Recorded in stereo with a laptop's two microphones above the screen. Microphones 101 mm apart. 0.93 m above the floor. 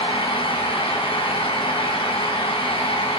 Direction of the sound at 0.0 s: 65° left (ahead or behind).